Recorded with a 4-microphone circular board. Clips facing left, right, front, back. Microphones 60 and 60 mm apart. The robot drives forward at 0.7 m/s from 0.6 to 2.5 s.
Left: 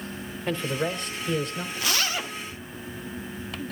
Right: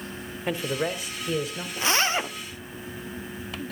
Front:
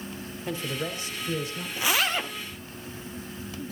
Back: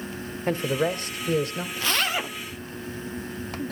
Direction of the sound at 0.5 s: 165° right.